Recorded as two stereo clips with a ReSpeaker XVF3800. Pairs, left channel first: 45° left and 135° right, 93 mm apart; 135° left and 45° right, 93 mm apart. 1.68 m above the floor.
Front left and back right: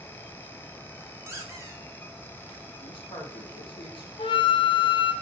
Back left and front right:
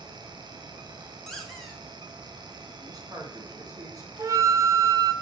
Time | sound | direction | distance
1.3 | a squeak | 145° right | 0.8 m
2.8 | a man speaking | 10° left | 1.5 m
4.2 | a flute | 15° left | 0.5 m